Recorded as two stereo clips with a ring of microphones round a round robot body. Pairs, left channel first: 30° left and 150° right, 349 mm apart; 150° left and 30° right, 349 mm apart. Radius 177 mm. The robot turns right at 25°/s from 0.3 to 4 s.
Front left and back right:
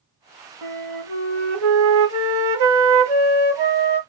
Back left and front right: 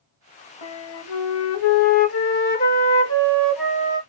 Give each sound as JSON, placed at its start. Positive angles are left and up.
{"t": 0.6, "sound": "a flute", "azimuth_deg": 165, "distance_m": 1.0}